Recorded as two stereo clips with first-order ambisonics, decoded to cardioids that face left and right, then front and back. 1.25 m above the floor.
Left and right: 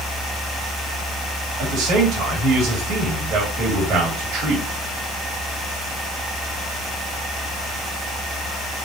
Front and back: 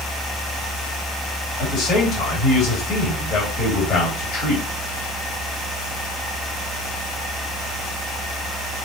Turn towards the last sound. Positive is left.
turn(degrees=-55)